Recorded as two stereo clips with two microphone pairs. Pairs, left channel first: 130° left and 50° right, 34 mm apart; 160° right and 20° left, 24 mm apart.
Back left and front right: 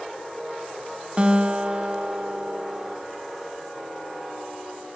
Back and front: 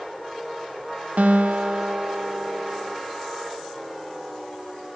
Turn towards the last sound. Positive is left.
turn(degrees=5)